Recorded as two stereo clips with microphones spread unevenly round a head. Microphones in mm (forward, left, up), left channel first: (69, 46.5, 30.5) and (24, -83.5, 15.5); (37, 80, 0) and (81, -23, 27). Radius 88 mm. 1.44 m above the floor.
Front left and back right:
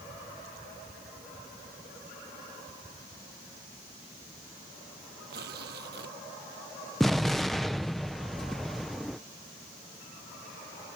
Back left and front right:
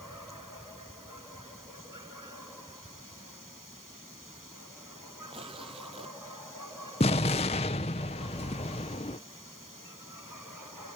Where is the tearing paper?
130° right.